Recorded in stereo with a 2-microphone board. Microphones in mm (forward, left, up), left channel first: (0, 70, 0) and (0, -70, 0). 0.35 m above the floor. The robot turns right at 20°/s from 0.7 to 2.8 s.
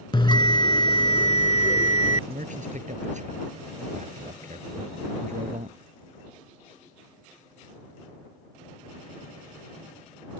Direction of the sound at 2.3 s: 70° right (ahead or behind).